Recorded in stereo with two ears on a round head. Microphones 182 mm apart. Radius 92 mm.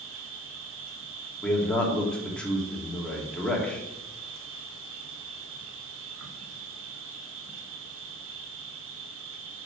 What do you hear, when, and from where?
0.0 s an insect: 70° right (ahead or behind), 1.3 m
1.4 s a man speaking: 5° left (ahead or behind), 2 m